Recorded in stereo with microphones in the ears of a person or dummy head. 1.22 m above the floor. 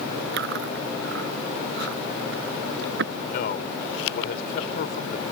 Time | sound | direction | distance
0.3 | chewing | 65° right (ahead or behind) | ?
3.3 | a man speaking | 60° left (ahead or behind) | ?